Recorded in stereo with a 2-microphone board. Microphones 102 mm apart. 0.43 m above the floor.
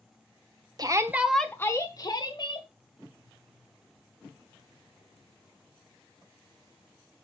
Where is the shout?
40° right (ahead or behind), 1.1 m; by 2.7 s 50° left (ahead or behind), 2.5 m.